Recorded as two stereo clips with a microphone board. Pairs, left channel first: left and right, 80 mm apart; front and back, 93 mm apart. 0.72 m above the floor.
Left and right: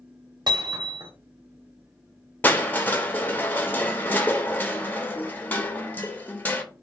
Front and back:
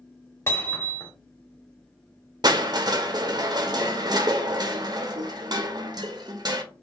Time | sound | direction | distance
0.5 | hammering | 60° right | 1.1 m
2.4 | crushing | 155° left | 0.7 m